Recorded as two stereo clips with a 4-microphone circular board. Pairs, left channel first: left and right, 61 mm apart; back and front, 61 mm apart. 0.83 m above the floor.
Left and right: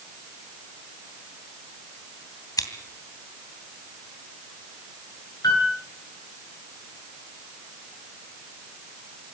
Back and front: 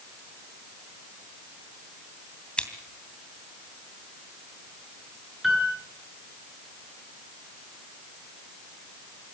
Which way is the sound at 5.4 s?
85° left.